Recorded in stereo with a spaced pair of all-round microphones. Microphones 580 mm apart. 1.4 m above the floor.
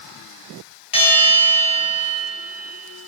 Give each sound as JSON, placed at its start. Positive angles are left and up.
{"t": 0.9, "sound": "a bell", "side_deg": 70, "distance_m": 3.5}